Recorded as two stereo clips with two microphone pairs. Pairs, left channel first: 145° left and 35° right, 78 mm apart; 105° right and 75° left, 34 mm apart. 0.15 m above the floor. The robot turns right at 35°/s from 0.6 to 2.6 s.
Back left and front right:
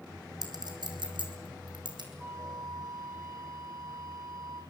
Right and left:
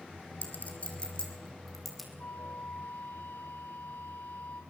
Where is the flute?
100° right, 6 m; by 4.6 s 90° right, 6 m.